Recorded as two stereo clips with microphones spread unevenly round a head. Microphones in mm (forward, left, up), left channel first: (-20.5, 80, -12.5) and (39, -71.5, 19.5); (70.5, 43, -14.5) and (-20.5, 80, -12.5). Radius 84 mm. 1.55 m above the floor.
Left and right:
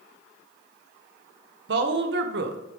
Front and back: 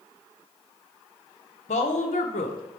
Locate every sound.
1.7 s a woman speaking: 45° right, 0.8 m